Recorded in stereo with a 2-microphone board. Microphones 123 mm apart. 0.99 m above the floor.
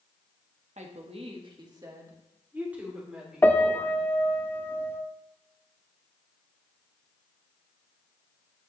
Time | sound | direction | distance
0.8 | a woman speaking | 70° right (ahead or behind) | 1.1 m
3.4 | a piano | 15° left (ahead or behind) | 0.6 m